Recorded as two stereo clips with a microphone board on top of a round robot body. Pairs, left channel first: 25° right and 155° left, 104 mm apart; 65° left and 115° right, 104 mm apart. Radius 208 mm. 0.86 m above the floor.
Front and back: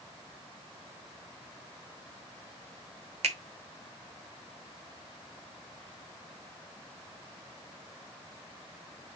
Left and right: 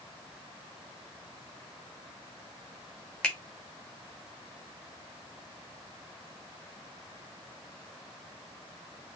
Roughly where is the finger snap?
Behind left.